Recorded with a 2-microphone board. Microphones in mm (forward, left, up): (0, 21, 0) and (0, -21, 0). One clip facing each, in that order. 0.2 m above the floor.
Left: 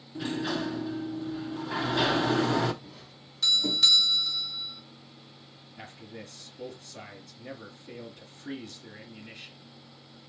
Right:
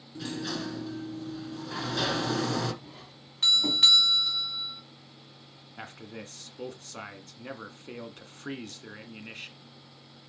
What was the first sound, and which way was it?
A sliding door, 20° left (ahead or behind).